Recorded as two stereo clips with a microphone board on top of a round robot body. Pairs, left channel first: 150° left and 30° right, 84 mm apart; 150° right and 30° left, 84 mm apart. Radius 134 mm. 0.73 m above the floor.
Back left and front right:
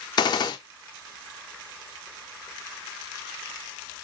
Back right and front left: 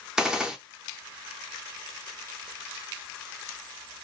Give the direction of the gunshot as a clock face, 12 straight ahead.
8 o'clock.